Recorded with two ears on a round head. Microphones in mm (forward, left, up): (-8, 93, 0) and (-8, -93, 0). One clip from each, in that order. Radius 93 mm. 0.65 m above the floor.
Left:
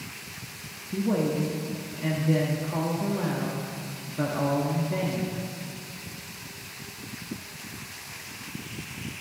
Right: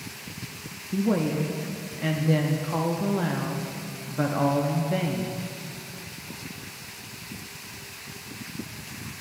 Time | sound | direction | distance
0.9 | a woman speaking | 25° right (ahead or behind) | 0.6 m